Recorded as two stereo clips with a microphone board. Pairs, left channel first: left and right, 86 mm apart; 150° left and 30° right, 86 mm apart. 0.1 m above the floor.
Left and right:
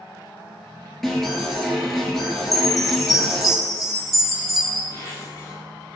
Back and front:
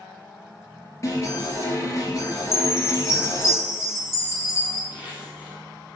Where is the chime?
Straight behind, 1.7 m.